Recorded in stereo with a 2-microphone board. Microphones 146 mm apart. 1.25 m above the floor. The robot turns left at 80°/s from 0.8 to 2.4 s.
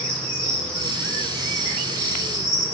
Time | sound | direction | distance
0.0 | an insect | 175° left | 3.5 m